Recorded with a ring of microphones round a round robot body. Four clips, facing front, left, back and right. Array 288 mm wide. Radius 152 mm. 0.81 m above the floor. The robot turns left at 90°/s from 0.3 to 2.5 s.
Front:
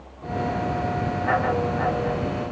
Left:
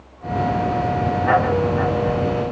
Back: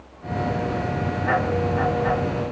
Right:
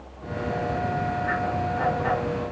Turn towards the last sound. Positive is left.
No sound to turn to.